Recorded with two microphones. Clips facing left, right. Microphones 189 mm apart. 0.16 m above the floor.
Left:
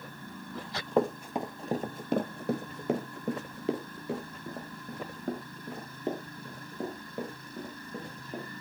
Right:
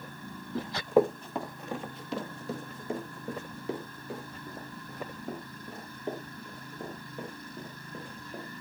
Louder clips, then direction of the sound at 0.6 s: Right 4 dB; 25° right (ahead or behind).